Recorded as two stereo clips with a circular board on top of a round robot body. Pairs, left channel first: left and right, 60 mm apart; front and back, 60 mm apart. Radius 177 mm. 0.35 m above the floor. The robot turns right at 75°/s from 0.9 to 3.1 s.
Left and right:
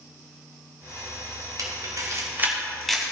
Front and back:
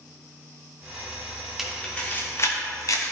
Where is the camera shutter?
95° right, 2.5 m; by 3.1 s 15° left, 2.5 m.